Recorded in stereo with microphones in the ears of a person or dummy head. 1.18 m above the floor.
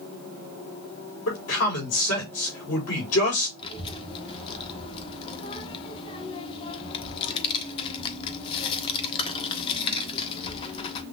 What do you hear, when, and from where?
1.3 s a man speaking: 75° left (ahead or behind), 4 m
3.6 s a child speaking: 25° left (ahead or behind), 1.2 m